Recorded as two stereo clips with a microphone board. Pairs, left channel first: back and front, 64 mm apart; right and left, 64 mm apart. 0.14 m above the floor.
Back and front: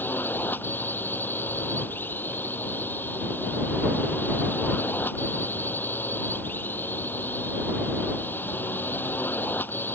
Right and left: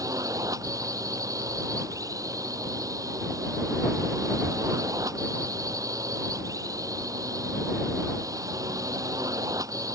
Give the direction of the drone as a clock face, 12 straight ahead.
8 o'clock.